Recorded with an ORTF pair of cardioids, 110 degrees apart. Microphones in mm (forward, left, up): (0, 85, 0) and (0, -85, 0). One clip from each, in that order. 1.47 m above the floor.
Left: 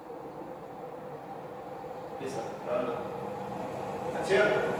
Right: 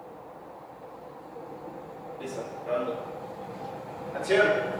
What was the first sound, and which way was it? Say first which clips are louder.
Running footsteps: right 1 dB; straight ahead.